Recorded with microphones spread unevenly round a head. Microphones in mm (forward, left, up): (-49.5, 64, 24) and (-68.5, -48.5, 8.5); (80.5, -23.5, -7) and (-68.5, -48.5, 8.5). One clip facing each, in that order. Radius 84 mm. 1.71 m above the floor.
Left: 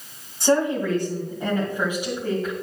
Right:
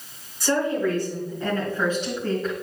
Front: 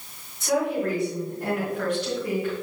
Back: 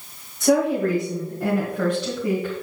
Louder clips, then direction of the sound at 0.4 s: Left 2 dB, back 5 dB; 140° left.